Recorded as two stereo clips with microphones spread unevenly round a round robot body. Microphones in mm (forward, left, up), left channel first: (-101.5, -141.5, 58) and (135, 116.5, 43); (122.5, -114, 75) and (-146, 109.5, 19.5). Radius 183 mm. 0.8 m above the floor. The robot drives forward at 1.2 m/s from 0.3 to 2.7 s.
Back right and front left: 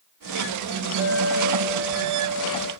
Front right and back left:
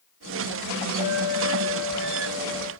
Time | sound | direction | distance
1.0 | a clink | 120° left | 5 m